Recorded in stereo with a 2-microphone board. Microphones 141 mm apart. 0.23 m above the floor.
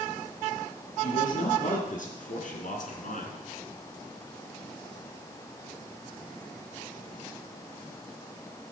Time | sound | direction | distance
1.0 | a man speaking | 60° left (ahead or behind) | 4 m